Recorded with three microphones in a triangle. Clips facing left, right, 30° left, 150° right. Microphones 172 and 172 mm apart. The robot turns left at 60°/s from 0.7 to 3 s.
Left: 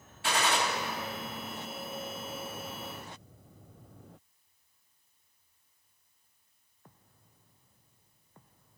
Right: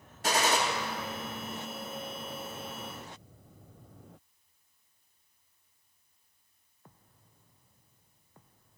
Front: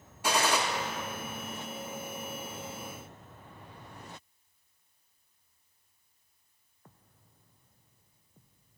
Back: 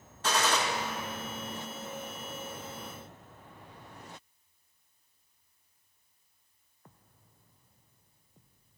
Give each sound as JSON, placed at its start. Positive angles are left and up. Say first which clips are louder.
{"t": 0.2, "sound": "a gunshot", "louder": "right 2 dB, front 1 dB", "azimuth_deg": -50, "distance_m": 1.2}